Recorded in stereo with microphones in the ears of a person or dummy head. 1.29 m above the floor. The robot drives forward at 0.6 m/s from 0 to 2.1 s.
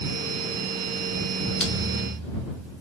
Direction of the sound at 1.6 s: 5° left (ahead or behind).